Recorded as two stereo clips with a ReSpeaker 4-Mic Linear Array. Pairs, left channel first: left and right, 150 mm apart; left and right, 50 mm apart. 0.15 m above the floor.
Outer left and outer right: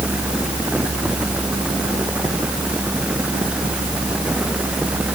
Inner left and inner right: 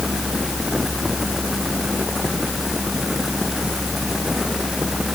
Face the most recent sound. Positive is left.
No sound to turn to.